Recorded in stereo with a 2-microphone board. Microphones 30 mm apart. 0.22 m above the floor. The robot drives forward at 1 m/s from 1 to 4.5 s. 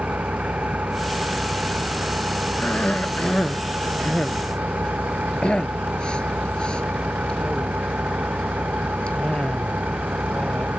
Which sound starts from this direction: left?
A cough, at 2.6 s.